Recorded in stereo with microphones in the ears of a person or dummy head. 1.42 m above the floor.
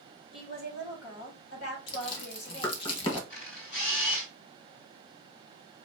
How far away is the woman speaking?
About 2 m.